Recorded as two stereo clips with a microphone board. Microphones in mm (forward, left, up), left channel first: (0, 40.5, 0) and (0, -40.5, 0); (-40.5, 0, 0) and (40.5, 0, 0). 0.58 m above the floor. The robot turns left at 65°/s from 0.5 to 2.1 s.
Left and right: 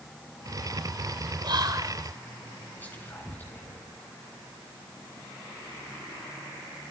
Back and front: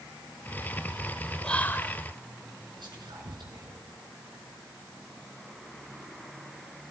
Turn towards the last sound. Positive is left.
turn(degrees=20)